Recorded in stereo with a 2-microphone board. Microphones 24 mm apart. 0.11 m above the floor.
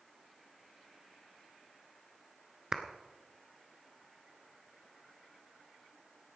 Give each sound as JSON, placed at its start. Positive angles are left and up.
{"t": 2.7, "sound": "a clap", "side_deg": -30, "distance_m": 1.0}